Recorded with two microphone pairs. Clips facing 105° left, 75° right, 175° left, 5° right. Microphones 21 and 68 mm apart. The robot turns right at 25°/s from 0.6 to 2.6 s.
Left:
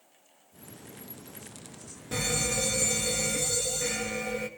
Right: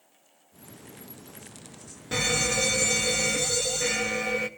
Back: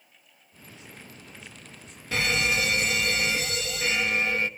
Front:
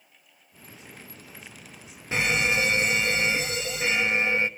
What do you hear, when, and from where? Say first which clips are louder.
2.1 s a fire alarm: right 4 dB, front 1 dB; 50° right, 1.2 m; by 4.5 s 35° right, 1.2 m